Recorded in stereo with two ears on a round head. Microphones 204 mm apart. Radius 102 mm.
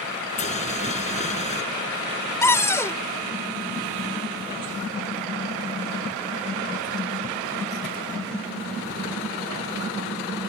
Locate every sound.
0.4 s boiling: 30° left (ahead or behind)
2.4 s a cupboard door: 15° left (ahead or behind)